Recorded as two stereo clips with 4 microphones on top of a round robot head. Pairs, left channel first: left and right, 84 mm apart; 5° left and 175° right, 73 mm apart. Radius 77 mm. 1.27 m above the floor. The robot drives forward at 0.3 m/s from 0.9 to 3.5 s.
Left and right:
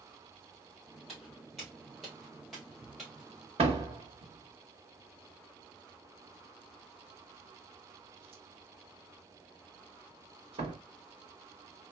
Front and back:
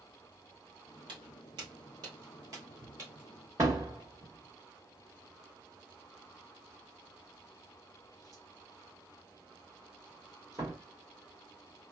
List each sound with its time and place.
1.1 s footsteps: straight behind, 2 m
3.6 s a door slam: 115° right, 1.1 m